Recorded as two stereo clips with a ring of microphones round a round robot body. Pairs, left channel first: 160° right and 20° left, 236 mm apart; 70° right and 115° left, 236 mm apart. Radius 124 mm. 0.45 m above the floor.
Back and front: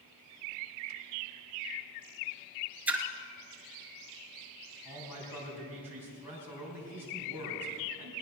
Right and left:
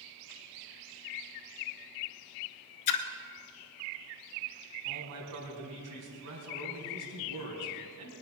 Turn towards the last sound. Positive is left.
turn(degrees=105)